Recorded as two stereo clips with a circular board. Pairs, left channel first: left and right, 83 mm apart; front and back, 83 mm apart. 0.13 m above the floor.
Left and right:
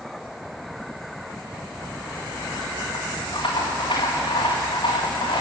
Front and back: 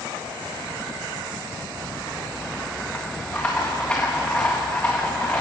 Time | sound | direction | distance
1.7 | a rattle | 70° left | 4 m